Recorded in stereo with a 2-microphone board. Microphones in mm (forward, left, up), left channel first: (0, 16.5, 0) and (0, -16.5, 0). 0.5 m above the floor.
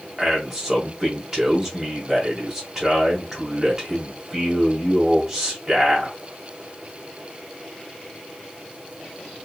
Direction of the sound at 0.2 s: 15° right (ahead or behind).